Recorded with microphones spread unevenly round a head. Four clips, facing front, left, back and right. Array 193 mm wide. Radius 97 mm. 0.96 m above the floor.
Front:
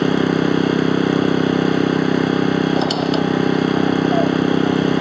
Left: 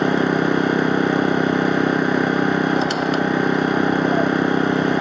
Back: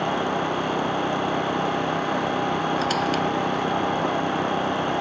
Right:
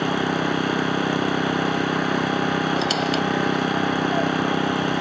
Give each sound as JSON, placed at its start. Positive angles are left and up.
{"t": 0.0, "sound": "an engine running", "azimuth_deg": 35}
{"t": 2.8, "sound": "a squeak", "azimuth_deg": 25}